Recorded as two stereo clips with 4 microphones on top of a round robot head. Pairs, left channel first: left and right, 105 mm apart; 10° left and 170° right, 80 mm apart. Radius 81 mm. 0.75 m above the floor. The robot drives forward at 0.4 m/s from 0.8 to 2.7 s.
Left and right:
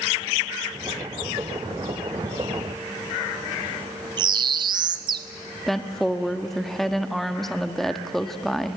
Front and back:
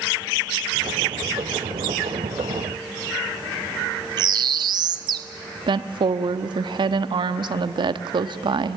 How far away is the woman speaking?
About 1.0 m.